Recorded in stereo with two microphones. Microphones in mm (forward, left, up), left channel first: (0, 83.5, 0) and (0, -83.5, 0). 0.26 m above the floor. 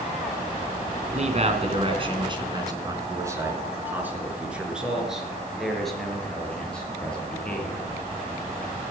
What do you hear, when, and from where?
1.1 s a man speaking: 50° right (ahead or behind), 2.5 m; by 7.8 s 10° left (ahead or behind), 6 m